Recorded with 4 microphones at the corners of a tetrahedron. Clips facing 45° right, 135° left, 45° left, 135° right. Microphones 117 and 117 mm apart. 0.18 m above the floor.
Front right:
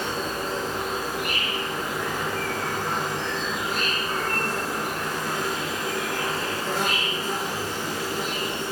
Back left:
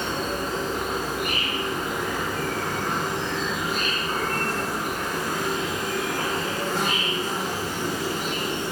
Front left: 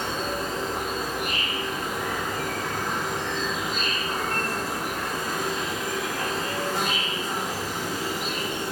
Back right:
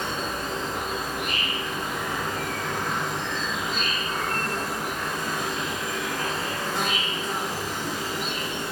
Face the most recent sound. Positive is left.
turn(degrees=120)